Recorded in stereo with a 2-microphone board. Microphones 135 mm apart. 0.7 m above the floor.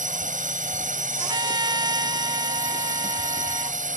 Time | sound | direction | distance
0.0 | a drone | 75° right (ahead or behind) | ?
1.2 | a trumpet | 35° right (ahead or behind) | ?